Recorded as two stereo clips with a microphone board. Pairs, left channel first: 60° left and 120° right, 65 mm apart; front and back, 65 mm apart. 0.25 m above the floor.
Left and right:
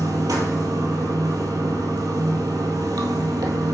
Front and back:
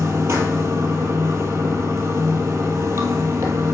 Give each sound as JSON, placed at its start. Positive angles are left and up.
{"t": 0.0, "sound": "running water", "azimuth_deg": -135, "distance_m": 1.3}